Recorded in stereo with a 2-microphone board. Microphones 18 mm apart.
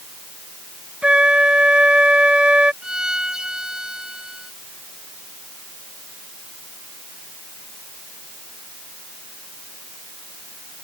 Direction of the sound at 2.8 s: 45° right (ahead or behind).